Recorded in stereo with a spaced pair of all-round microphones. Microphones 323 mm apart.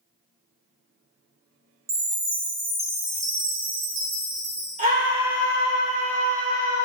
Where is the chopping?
No chopping in this recording.